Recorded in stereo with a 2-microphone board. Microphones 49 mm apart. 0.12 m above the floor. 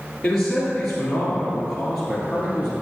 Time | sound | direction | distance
0.2 | a man speaking | 10° left (ahead or behind) | 2 m